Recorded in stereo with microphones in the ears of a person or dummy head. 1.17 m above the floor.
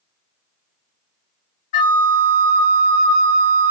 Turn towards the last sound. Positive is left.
turn(degrees=40)  # may be behind; listen again after turning